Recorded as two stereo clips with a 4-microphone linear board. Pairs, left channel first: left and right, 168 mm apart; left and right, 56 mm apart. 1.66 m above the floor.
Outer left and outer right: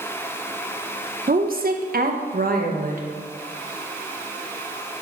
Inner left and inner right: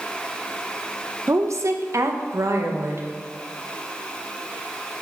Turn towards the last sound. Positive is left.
turn(degrees=-50)  # may be behind; listen again after turning